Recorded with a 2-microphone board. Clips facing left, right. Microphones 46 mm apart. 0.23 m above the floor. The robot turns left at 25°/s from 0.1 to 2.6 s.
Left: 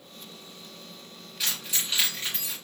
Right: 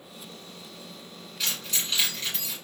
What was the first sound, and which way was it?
Keys jangling, 5° left (ahead or behind).